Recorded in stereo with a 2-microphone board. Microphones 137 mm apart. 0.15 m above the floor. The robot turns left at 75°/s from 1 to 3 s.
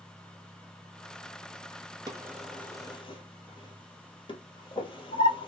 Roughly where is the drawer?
Right.